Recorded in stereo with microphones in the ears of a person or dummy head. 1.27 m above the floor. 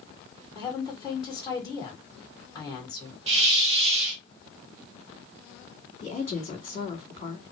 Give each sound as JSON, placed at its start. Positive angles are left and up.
{"t": 0.6, "sound": "a woman speaking", "side_deg": 20, "distance_m": 2.0}
{"t": 3.3, "sound": "a hiss", "side_deg": -35, "distance_m": 1.3}
{"t": 6.0, "sound": "a woman speaking", "side_deg": 35, "distance_m": 2.5}